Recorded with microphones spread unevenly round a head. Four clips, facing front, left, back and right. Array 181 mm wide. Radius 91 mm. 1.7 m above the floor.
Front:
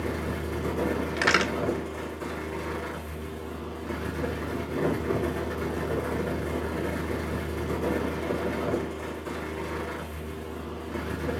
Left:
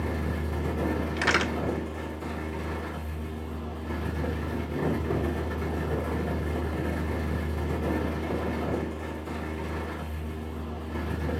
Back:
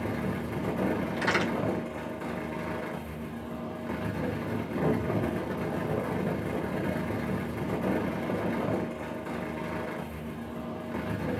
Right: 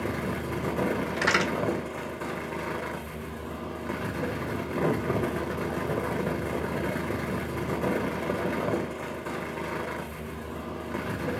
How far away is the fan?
About 1.0 m.